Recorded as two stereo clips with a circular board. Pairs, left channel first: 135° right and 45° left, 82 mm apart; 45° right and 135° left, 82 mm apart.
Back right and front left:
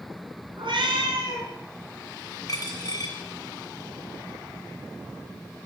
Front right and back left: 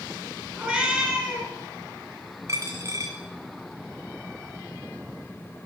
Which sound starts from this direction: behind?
A dropped coin, at 2.5 s.